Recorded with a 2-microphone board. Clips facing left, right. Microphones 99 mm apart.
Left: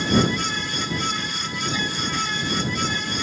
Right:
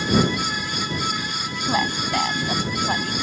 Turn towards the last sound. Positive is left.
turn(degrees=-75)  # may be behind; listen again after turning